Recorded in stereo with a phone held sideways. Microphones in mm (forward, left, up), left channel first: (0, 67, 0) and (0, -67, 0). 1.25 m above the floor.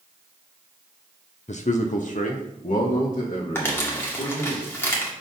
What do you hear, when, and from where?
1.5 s a man speaking: 60° left (ahead or behind), 0.5 m; by 4.5 s 75° left (ahead or behind), 2 m
3.5 s crumpling: 20° left (ahead or behind), 1.8 m